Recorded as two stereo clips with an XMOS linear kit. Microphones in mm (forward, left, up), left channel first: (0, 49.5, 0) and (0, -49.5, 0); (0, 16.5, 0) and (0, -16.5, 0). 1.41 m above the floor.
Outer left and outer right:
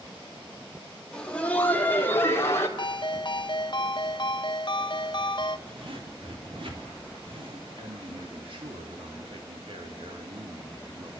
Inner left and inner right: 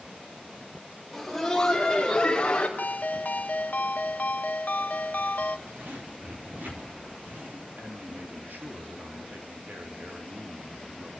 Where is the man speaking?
65° right (ahead or behind), 3.5 m.